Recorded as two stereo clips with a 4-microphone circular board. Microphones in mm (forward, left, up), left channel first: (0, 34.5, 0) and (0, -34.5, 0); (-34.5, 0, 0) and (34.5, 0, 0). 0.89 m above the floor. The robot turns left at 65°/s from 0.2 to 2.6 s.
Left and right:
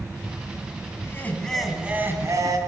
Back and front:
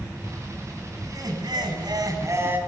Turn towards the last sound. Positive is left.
turn(degrees=-65)